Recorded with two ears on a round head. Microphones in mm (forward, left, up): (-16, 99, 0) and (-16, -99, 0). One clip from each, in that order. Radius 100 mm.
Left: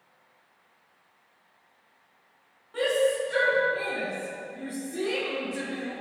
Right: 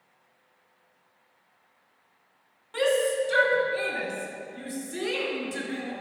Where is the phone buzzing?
No phone buzzing in this recording.